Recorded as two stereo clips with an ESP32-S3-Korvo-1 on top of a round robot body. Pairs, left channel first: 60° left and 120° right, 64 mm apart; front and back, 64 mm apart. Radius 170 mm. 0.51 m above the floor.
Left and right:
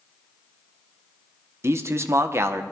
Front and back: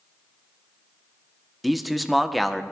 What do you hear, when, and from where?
1.6 s a man speaking: 90° right, 1.5 m